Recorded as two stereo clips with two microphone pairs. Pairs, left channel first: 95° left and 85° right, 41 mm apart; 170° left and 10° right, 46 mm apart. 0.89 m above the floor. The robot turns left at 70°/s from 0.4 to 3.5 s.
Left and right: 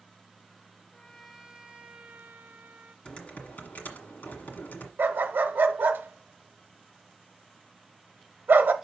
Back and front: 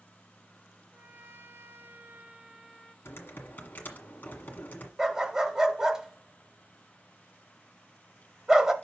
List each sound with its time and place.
0.9 s a trumpet: 25° left, 0.9 m; by 3.0 s 115° right, 0.9 m
3.0 s typing on a keyboard: 160° left, 1.5 m; by 4.9 s 125° left, 1.5 m
5.0 s a dog barking: 85° right, 0.9 m